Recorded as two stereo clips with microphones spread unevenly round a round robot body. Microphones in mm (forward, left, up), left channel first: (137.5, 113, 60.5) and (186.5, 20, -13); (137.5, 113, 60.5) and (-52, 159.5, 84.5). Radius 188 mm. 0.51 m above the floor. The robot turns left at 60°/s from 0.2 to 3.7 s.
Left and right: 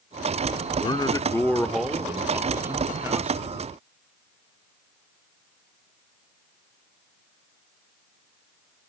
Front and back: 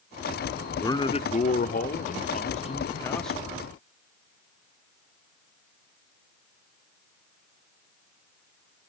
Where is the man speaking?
55° left, 1.1 m; by 3.5 s 110° right, 1.1 m.